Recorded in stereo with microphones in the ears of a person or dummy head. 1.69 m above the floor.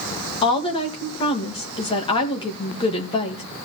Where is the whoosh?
No whoosh in this recording.